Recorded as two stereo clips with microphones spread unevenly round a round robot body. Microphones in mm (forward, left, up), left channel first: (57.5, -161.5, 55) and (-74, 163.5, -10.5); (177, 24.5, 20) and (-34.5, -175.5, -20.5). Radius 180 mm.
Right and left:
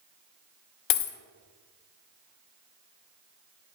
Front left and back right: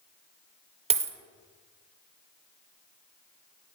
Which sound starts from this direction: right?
A dropped coin, at 0.9 s.